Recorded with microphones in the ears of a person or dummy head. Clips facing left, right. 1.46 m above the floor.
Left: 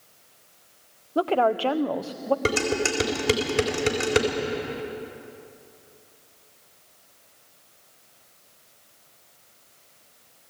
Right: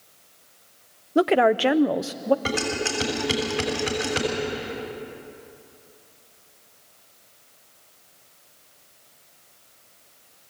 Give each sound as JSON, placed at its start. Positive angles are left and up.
{"t": 1.1, "sound": "a woman speaking", "side_deg": -25, "distance_m": 0.5}
{"t": 2.5, "sound": "dishes clattering", "side_deg": 55, "distance_m": 4.0}